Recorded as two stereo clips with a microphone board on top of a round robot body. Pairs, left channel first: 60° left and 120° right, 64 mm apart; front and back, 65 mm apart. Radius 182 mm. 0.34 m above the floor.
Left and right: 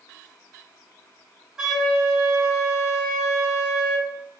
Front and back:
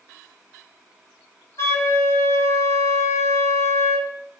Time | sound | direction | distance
1.6 | a flute | 35° right | 1.2 m